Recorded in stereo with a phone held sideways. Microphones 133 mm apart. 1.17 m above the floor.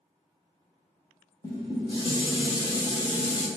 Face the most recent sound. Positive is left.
turn(degrees=35)  # may be behind; listen again after turning